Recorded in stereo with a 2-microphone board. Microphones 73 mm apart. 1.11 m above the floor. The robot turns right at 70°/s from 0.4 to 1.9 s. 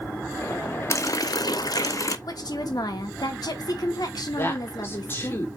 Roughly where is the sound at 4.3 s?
Left.